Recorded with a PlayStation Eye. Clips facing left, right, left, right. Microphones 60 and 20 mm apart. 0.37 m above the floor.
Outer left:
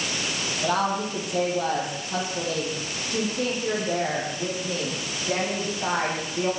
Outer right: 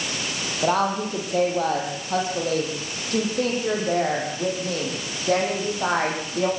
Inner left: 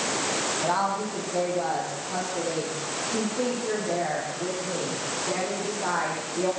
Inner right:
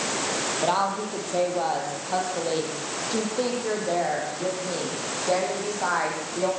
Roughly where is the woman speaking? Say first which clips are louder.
Outer right 3 dB, inner right 3 dB; right.